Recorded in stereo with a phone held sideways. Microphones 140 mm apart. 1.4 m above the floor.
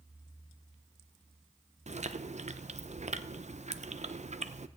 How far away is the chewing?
About 0.6 m.